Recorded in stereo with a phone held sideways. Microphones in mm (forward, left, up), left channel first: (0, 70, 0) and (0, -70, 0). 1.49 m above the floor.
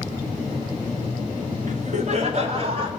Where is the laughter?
65° right (ahead or behind), 1.6 m; by 2.9 s 40° right (ahead or behind), 2.5 m.